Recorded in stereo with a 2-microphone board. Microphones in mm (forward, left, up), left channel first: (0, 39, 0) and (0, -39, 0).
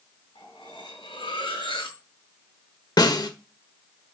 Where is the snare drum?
60° left (ahead or behind), 1.3 m.